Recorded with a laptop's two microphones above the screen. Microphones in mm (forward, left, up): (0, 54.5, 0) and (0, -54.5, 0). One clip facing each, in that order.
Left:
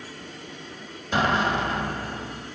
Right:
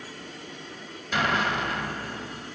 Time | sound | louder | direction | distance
1.1 | an explosion | left 3 dB | 30° left (ahead or behind) | 1.5 m